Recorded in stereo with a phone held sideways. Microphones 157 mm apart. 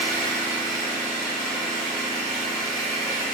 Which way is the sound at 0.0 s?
5° left (ahead or behind).